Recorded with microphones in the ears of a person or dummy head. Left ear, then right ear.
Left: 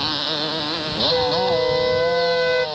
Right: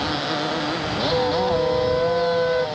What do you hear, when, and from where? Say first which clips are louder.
0.0 s a motorcycle: left 1 dB; 35° left (ahead or behind)
1.1 s a flute: left 1 dB; 70° left (ahead or behind)